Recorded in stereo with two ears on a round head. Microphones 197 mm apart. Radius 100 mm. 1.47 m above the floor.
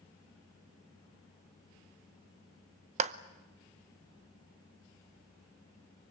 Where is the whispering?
No whispering in this recording.